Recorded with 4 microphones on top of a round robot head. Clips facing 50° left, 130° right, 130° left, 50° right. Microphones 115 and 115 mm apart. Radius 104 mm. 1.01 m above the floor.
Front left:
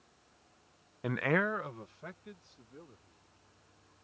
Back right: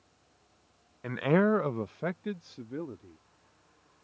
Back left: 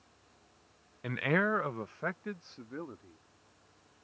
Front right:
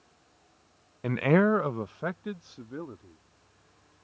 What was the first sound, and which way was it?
A man speaking, 15° right.